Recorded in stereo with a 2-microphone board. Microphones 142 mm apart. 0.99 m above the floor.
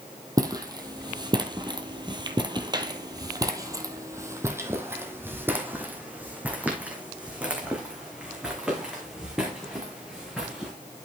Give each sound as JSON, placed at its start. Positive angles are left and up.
{"t": 0.4, "sound": "footsteps", "side_deg": -25, "distance_m": 1.5}